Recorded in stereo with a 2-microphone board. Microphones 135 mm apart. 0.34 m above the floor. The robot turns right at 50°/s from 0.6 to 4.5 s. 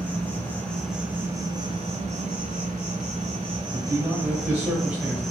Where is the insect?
170° left, 0.7 m; by 5.3 s 5° left, 0.7 m.